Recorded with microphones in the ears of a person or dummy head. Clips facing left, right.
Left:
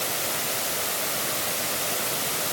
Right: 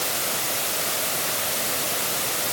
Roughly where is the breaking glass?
I don't hear breaking glass.